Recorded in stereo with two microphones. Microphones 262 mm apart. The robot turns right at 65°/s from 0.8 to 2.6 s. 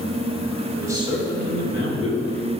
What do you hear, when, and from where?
0.8 s a man speaking: 170° right, 2 m; by 2.4 s 70° right, 2 m